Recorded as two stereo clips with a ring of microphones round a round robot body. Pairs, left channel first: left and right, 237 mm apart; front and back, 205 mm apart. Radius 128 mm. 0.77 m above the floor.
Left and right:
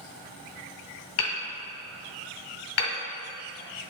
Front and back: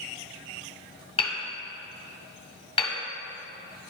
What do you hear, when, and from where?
1.2 s hammering: 65° left, 1.7 m